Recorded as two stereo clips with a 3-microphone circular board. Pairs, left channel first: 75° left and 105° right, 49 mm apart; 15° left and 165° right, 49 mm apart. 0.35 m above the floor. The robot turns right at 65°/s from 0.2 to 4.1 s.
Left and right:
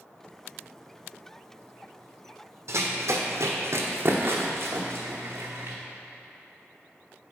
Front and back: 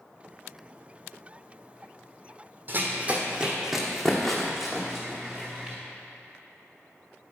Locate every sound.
2.7 s running footsteps: 120° right, 1.0 m; by 5.8 s 95° right, 1.8 m